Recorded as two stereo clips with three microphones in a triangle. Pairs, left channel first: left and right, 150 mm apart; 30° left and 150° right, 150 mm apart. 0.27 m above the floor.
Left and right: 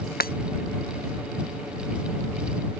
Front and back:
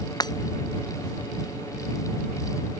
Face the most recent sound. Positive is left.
turn(degrees=95)